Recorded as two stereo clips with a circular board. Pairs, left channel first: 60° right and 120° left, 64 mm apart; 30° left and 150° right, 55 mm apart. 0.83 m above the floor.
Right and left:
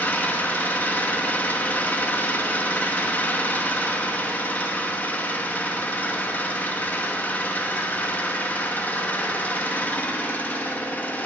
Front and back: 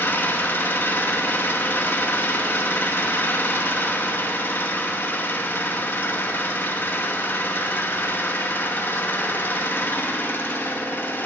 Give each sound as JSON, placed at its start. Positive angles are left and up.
{"t": 0.0, "sound": "an engine running", "azimuth_deg": -5, "distance_m": 1.0}